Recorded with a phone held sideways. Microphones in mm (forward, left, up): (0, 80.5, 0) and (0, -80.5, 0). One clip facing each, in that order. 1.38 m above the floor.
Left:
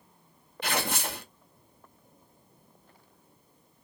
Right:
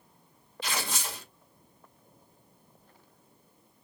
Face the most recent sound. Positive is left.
turn(degrees=55)  # may be behind; listen again after turning